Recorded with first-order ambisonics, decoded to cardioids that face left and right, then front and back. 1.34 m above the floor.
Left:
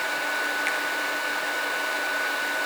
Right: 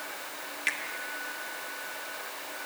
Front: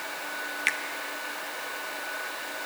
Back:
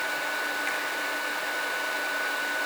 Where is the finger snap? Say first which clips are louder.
Left 4 dB, front 2 dB; 5° left, 0.8 m.